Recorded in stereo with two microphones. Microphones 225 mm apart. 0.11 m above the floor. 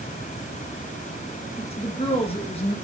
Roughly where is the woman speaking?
Left.